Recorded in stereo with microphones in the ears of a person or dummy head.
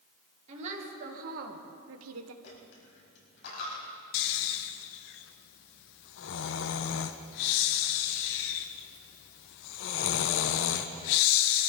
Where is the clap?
No clap in this recording.